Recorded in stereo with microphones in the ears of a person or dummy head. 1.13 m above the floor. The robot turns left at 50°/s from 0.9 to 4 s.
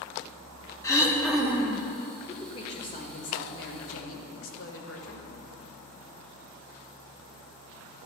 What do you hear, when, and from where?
0.8 s throat clearing: 20° left, 1.1 m; by 1.8 s 30° right, 1.1 m
2.3 s a woman speaking: 160° left, 1.5 m; by 5.3 s 75° left, 1.5 m